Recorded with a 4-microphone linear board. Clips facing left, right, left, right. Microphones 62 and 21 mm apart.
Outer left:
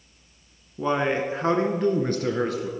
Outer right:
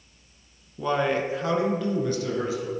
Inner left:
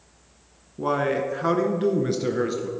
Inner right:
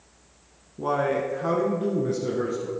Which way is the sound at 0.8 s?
15° left (ahead or behind).